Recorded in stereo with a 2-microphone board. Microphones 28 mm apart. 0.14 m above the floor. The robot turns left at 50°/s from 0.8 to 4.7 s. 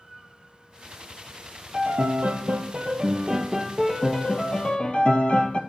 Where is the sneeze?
No sneeze in this recording.